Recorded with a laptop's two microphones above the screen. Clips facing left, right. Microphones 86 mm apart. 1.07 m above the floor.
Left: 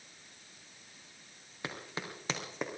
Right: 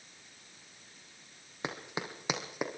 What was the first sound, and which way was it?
Running footsteps, 20° right (ahead or behind).